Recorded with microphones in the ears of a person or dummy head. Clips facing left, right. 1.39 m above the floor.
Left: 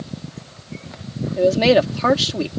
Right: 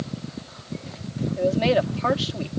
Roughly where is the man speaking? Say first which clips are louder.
Left 6 dB; left.